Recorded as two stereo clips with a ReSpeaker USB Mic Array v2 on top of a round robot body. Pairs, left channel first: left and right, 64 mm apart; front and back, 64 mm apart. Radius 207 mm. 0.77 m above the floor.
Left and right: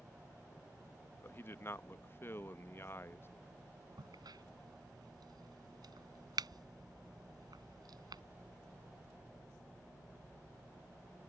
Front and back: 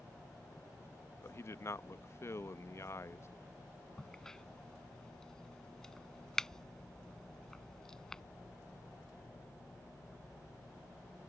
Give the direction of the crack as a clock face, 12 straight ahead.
3 o'clock.